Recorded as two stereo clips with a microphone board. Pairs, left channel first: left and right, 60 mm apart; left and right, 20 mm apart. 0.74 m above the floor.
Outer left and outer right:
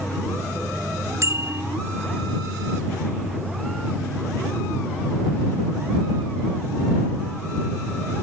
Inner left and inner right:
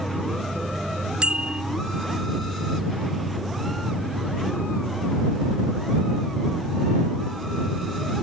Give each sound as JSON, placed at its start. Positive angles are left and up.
{"t": 1.2, "sound": "a bicycle bell", "side_deg": -55}